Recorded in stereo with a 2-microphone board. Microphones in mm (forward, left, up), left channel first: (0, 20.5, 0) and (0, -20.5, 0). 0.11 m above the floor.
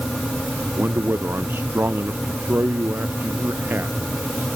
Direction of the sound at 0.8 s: 60° right (ahead or behind).